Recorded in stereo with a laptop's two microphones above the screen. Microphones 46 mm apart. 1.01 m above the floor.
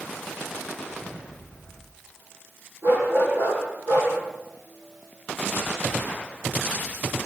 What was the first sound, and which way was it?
A dog barking, 85° right.